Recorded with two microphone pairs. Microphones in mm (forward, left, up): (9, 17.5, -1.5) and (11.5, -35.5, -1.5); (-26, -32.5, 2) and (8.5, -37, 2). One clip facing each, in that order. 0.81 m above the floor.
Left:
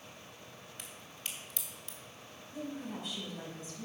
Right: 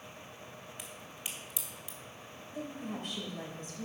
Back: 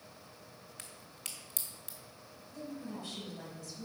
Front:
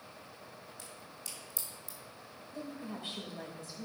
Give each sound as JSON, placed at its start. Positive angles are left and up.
{"t": 0.8, "sound": "a crack", "azimuth_deg": -165, "distance_m": 1.8}
{"t": 2.5, "sound": "a woman speaking", "azimuth_deg": -55, "distance_m": 3.0}